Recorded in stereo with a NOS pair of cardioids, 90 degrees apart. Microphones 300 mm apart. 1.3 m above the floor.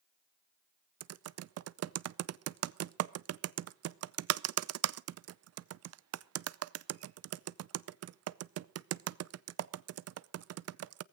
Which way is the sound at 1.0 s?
55° right.